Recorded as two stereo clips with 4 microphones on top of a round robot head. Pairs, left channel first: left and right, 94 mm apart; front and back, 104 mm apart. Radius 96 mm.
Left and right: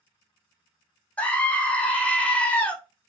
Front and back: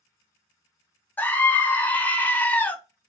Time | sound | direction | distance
1.2 | a scream | 40° left | 0.5 m